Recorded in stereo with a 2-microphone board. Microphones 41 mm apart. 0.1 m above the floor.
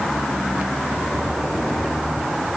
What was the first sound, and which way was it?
Only background noise.